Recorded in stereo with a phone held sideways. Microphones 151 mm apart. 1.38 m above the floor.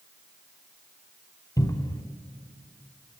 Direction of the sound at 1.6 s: 25° left (ahead or behind).